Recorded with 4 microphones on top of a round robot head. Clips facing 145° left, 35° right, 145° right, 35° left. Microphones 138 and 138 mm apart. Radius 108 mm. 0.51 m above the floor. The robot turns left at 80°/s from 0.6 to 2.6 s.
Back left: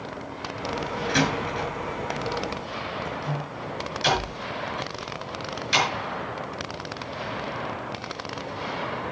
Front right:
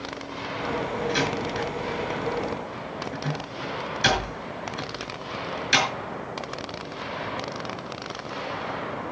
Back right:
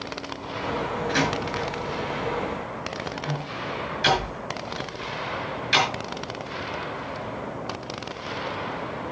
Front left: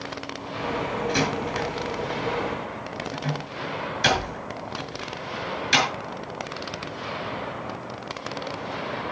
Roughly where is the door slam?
Behind left.